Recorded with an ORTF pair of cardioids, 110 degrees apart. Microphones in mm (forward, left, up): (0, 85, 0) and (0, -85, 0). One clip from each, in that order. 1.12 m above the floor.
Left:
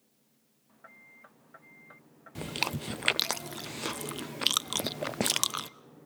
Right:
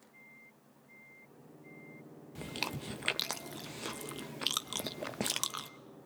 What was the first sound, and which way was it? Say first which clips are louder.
Chewing: left 6 dB; 25° left.